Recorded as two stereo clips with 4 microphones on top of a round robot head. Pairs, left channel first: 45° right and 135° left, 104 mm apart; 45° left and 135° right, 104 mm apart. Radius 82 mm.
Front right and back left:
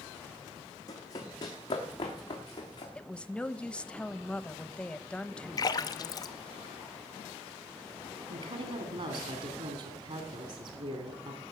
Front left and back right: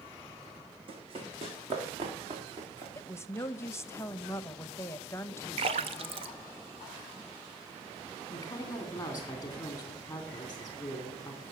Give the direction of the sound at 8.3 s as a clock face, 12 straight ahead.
8 o'clock.